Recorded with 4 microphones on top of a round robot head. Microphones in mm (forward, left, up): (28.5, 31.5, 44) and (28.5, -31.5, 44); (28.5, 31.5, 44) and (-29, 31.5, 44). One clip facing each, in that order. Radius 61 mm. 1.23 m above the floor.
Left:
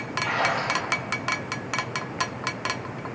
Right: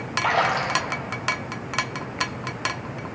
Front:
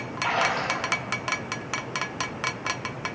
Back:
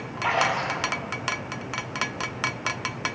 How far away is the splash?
About 0.9 m.